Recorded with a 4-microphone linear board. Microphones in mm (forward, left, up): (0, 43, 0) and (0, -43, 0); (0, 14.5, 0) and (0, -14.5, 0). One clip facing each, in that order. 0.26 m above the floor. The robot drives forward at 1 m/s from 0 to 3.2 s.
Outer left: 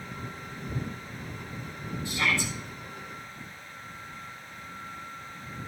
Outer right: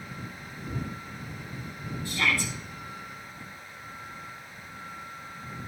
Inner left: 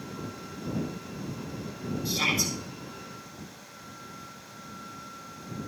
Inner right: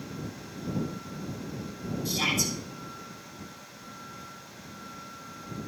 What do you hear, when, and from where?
2.0 s a shout: 20° left (ahead or behind), 5 m